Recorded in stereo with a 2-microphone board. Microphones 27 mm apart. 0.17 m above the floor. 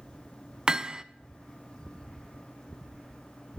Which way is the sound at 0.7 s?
30° right (ahead or behind).